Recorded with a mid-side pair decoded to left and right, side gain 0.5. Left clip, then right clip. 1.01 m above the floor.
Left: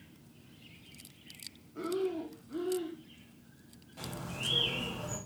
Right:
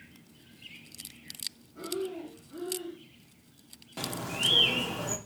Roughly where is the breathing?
Ahead left.